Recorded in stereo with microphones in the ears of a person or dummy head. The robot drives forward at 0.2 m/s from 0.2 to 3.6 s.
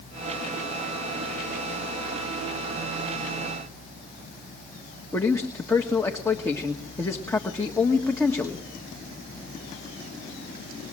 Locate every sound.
5.1 s a man speaking: 20° left (ahead or behind), 1.4 m